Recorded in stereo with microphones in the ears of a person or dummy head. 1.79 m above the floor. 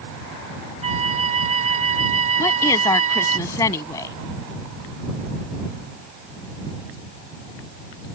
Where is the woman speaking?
15° left (ahead or behind).